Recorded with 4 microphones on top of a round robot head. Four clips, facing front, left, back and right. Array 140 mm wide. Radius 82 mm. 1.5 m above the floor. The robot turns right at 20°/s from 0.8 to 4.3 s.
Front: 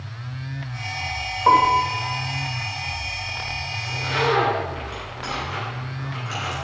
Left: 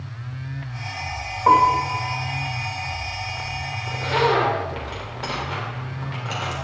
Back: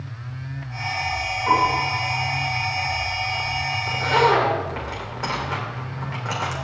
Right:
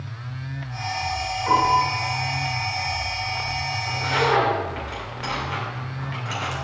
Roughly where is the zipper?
Behind left.